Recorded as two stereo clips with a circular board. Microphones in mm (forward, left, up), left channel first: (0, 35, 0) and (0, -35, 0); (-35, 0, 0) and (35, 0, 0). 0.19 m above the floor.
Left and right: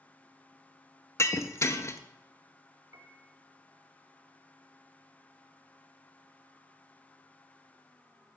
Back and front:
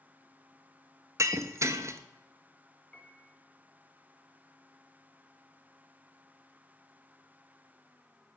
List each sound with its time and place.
1.2 s breaking glass: 45° left, 0.5 m
2.9 s a piano: 100° right, 1.0 m